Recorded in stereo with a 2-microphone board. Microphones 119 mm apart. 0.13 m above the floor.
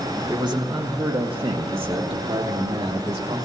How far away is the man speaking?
About 1.9 m.